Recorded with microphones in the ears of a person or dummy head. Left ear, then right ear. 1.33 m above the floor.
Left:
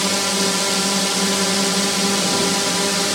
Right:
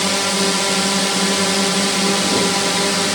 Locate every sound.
0.0 s a drone: 10° right (ahead or behind)